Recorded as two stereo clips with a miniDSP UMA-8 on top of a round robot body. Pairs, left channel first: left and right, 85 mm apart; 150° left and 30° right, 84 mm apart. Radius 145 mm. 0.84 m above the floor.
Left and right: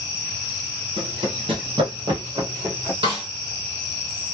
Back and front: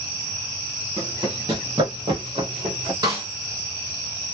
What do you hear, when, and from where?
1.0 s running footsteps: 80° right, 1.6 m; by 2.9 s 20° right, 1.0 m
3.0 s a snare drum: 75° right, 0.6 m